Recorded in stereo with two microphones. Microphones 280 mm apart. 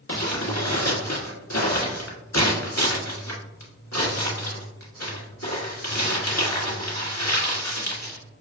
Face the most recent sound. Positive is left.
turn(degrees=85)